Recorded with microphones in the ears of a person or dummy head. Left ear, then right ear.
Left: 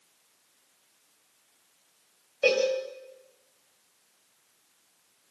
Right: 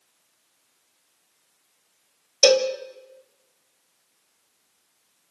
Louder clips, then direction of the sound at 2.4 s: Right 6 dB; 65° right (ahead or behind).